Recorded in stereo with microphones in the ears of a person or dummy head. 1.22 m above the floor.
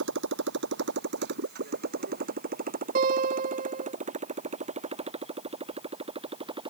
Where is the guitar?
50° right (ahead or behind).